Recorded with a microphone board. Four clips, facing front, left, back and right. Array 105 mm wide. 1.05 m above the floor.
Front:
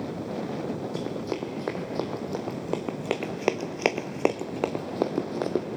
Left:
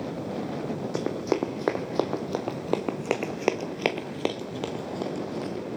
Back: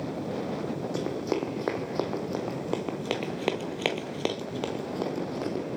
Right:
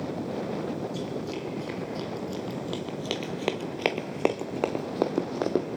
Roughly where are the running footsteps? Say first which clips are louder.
Left 6 dB, back 2 dB; left.